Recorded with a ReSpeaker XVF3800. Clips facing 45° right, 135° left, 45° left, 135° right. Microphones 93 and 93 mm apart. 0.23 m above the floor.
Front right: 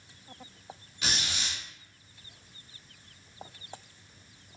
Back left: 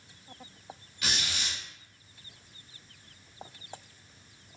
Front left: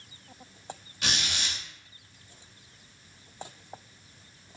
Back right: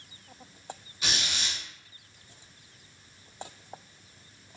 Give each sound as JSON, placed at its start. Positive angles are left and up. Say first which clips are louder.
{"t": 1.0, "sound": "a squeak", "louder": "even, front left 1 dB", "azimuth_deg": 25, "distance_m": 1.6}